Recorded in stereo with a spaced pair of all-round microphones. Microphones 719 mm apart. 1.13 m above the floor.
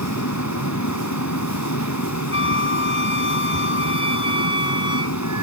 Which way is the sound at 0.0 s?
20° left (ahead or behind).